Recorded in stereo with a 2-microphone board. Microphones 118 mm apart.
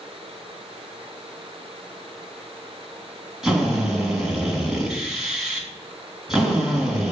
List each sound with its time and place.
3.4 s a drill: 5° right (ahead or behind), 3 m